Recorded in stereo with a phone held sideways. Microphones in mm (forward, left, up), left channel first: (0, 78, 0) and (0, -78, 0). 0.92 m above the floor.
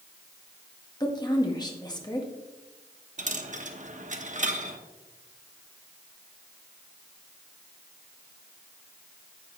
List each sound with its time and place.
1.0 s a woman speaking: 25° left (ahead or behind), 1.4 m
3.2 s a dropped coin: 50° right (ahead or behind), 0.8 m